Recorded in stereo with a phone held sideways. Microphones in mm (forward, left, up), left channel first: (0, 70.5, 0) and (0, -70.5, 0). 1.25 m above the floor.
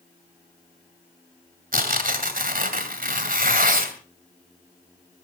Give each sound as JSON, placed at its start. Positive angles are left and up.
{"t": 1.7, "sound": "tearing paper", "side_deg": -70, "distance_m": 2.5}